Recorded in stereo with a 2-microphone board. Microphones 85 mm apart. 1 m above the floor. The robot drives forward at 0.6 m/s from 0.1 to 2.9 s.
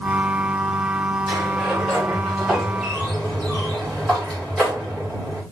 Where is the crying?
No crying in this recording.